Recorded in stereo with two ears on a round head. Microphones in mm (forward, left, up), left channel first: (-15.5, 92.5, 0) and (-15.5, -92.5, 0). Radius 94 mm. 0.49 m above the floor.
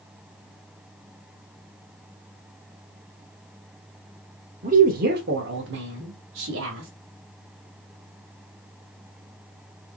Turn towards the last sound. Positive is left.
turn(degrees=-60)  # may be behind; listen again after turning